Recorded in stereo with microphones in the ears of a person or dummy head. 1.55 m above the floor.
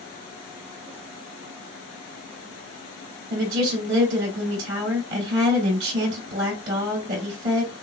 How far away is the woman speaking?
About 2.5 m.